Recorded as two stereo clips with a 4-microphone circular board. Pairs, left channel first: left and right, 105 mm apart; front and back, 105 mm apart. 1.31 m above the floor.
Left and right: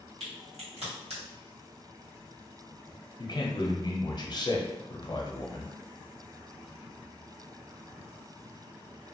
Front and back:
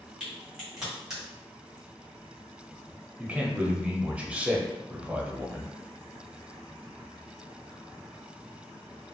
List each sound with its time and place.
0.2 s a crack: 95° right, 1.5 m
3.2 s a man speaking: 105° left, 0.6 m